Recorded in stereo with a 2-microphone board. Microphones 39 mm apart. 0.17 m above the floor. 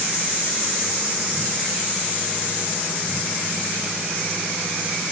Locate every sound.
Only background noise.